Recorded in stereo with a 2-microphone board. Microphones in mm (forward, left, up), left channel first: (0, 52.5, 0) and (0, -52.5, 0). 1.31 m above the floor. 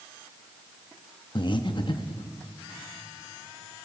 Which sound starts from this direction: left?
Breathing, at 1.4 s.